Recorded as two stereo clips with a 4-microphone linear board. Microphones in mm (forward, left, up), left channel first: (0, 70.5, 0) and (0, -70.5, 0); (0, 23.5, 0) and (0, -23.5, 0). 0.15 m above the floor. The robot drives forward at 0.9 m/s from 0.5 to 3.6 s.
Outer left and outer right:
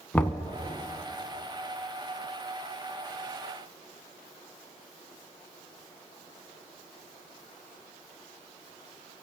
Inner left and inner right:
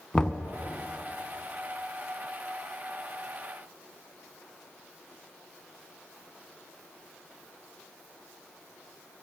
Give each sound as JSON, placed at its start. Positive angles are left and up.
{"t": 0.1, "sound": "knocking", "side_deg": 10, "distance_m": 0.7}